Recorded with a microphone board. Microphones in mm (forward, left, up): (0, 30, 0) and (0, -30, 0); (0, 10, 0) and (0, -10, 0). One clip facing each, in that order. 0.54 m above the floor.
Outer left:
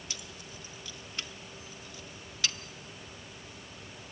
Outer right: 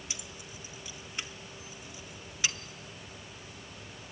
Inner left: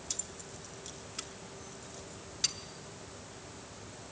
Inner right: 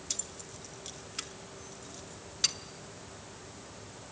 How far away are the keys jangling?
About 0.7 m.